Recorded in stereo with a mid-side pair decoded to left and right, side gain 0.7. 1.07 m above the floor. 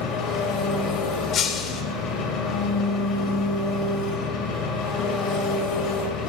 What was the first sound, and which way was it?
An engine running, 55° left.